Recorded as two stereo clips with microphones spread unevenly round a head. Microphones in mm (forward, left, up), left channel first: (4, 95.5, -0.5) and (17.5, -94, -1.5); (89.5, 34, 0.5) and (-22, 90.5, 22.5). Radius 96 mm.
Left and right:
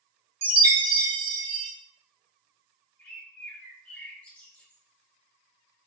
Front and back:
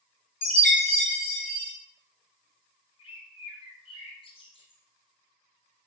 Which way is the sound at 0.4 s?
30° right.